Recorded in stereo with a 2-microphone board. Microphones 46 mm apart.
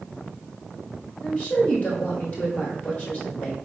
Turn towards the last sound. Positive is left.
turn(degrees=35)  # may be behind; listen again after turning